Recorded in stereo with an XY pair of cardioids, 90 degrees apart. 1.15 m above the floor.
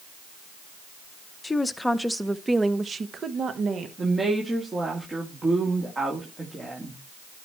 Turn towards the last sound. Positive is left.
turn(degrees=-30)